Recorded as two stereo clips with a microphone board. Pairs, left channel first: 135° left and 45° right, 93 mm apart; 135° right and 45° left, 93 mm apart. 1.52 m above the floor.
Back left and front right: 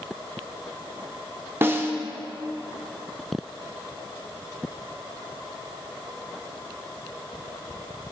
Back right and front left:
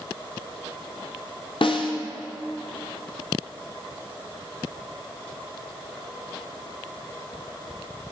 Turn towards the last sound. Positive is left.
turn(degrees=-110)